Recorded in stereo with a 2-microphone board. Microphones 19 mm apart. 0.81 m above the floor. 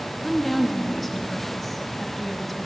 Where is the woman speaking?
5° left (ahead or behind), 1.1 m.